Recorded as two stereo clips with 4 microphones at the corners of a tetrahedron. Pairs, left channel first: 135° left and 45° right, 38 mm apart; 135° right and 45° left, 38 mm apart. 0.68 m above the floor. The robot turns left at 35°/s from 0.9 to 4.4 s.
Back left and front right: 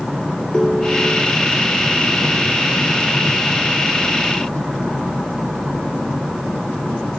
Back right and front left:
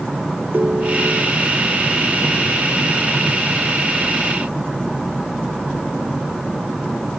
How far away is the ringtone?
About 0.8 m.